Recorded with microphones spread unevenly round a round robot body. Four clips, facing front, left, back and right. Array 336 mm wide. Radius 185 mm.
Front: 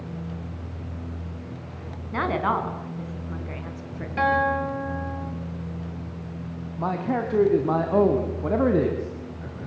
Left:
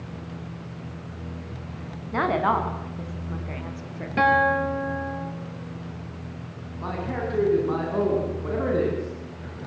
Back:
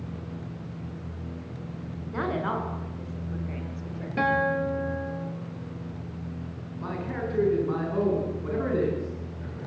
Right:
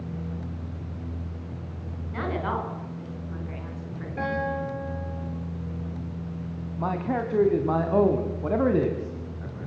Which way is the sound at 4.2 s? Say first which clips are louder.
Left 9 dB, front 3 dB; 90° left.